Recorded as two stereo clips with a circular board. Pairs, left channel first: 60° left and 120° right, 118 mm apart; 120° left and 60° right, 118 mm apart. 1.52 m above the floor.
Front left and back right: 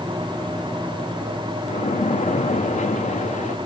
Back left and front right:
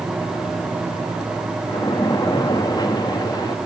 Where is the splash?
65° left, 0.9 m.